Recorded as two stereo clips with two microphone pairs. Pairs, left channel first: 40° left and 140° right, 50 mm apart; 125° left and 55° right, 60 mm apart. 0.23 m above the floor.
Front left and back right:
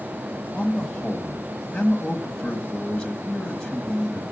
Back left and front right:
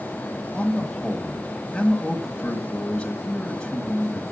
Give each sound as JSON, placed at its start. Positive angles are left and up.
{"t": 0.5, "sound": "a man speaking", "azimuth_deg": 80, "distance_m": 1.3}